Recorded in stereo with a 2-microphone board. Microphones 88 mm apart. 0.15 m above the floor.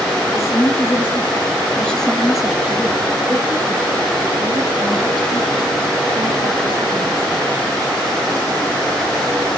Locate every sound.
0.3 s a woman speaking: 35° left (ahead or behind), 3 m; by 7.5 s 75° right (ahead or behind), 5 m